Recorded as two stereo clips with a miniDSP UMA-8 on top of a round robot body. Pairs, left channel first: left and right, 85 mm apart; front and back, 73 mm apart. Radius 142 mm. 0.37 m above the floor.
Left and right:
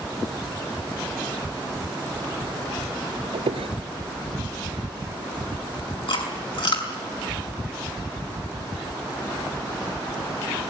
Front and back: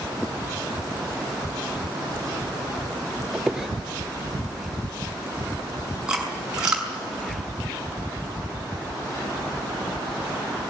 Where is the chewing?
100° left, 6 m.